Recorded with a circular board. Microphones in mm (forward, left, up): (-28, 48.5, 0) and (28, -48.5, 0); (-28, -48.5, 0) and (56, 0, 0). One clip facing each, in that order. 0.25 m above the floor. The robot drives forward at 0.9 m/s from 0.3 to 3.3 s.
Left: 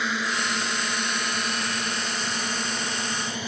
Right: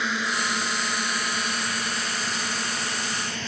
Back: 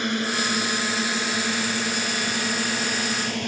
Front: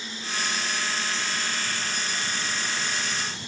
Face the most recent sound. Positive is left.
turn(degrees=-160)